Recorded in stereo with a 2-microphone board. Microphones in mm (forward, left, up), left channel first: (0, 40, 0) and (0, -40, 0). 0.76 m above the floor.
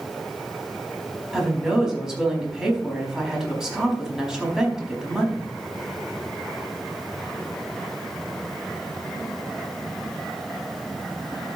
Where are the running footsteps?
No running footsteps in this recording.